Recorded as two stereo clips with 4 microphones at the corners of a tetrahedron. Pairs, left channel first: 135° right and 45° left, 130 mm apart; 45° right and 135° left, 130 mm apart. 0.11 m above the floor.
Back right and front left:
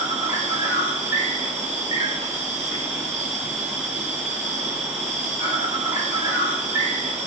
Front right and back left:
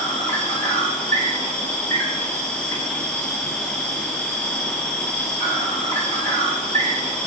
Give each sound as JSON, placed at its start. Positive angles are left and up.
{"t": 0.0, "sound": "an insect", "azimuth_deg": 15, "distance_m": 1.3}